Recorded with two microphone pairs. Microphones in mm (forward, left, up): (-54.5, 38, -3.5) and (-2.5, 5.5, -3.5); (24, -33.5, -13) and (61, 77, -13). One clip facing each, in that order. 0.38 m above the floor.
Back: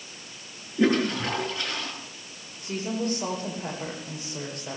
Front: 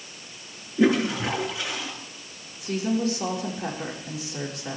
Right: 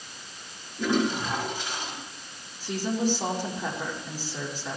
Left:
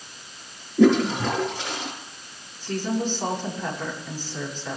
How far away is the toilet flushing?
About 6 m.